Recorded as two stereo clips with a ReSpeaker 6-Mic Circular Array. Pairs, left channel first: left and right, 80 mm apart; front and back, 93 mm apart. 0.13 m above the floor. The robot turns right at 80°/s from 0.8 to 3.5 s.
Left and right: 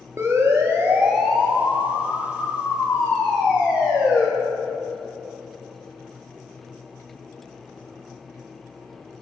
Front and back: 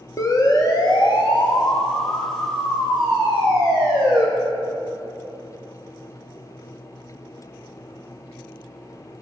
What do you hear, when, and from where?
0.2 s a siren: 40° right, 2.5 m; by 4.2 s 165° right, 5.5 m